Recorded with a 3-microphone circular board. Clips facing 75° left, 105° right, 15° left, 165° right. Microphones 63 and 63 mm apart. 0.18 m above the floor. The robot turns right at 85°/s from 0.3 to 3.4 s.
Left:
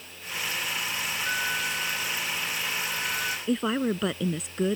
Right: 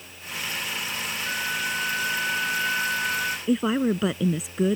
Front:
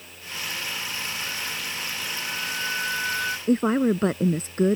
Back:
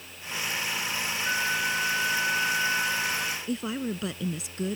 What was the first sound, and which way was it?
A flute, 150° left.